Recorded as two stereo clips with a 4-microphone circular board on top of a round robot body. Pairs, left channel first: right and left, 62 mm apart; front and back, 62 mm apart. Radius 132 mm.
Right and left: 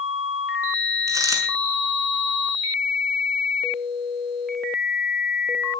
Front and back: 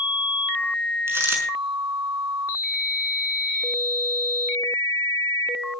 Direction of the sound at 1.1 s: 130° left.